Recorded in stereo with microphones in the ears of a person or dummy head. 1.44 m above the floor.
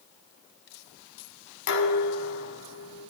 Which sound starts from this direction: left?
Dishes clattering, at 1.7 s.